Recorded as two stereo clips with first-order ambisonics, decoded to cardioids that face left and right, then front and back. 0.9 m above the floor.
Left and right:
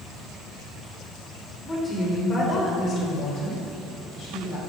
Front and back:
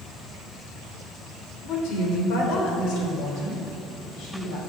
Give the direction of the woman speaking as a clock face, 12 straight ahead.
11 o'clock.